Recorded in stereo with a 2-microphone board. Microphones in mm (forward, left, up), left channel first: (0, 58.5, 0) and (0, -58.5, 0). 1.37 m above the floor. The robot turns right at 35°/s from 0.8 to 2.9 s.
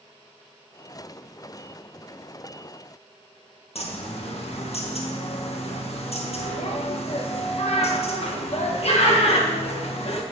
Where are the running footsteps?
No running footsteps in this recording.